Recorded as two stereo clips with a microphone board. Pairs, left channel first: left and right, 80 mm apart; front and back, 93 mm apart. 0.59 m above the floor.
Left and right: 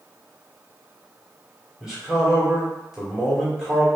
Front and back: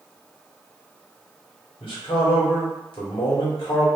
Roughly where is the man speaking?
Ahead.